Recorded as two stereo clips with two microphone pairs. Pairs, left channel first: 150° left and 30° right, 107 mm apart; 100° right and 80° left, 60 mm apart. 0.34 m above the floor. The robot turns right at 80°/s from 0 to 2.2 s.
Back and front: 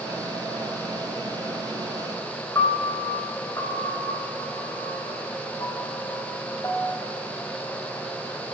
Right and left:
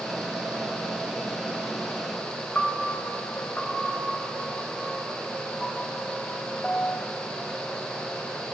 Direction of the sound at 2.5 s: 160° right.